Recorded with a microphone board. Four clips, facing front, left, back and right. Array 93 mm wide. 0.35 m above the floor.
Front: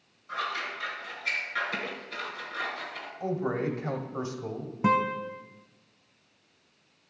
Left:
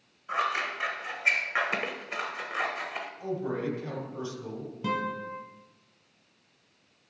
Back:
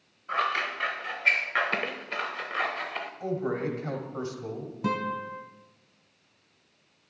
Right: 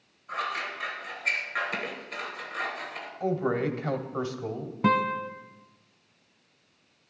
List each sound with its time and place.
0.3 s scissors: 155° left, 0.9 m
3.2 s a man speaking: 85° right, 1.5 m
4.8 s a guitar: 65° right, 1.1 m